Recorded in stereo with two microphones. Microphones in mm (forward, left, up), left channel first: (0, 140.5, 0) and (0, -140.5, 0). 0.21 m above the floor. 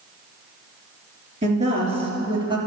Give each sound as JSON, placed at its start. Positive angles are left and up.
{"t": 1.4, "sound": "a woman speaking", "side_deg": -25, "distance_m": 3.5}